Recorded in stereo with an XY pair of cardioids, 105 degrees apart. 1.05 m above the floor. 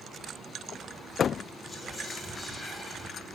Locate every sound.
1.7 s whispering: 20° left, 1.1 m